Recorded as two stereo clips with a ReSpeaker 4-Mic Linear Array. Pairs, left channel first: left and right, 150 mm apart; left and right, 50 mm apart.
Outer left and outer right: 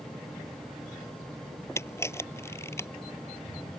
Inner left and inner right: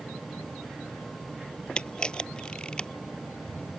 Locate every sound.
1.8 s a camera shutter: 15° left (ahead or behind)